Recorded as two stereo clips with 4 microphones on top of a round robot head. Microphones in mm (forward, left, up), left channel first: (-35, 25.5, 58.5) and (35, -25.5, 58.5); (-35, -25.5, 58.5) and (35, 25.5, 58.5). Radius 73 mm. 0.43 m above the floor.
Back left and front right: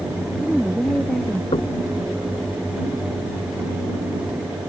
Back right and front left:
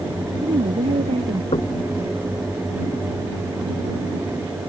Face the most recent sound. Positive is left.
turn(degrees=180)